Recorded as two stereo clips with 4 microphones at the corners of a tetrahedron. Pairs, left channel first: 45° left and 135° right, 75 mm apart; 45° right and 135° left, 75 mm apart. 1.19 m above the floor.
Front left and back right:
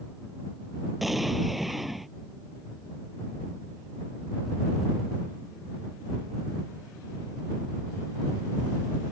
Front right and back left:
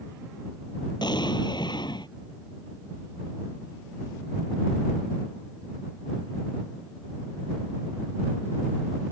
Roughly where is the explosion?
Ahead right.